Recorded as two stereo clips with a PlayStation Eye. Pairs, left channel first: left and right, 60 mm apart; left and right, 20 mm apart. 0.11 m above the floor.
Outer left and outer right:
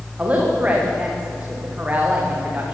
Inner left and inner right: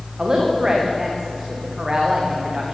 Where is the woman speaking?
25° right (ahead or behind), 8.5 m.